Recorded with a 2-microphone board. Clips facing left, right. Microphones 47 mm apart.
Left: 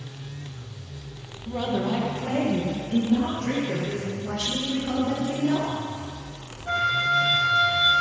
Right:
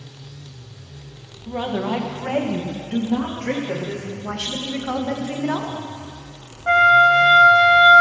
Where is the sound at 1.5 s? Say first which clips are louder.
Right 2 dB; 20° right (ahead or behind), 1.8 m; by 4.0 s 85° right, 4 m.